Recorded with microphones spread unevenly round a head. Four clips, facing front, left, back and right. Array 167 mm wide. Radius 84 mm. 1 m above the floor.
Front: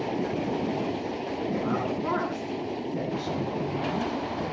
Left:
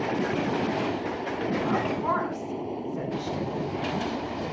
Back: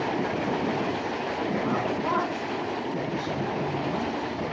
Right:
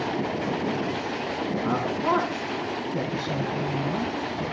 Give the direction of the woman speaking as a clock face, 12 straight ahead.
3 o'clock.